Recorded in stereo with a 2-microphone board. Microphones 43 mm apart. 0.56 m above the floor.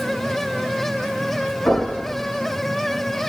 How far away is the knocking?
About 4 m.